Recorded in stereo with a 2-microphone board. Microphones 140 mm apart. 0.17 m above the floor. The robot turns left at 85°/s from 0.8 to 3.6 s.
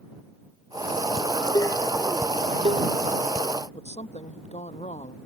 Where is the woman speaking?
55° left (ahead or behind).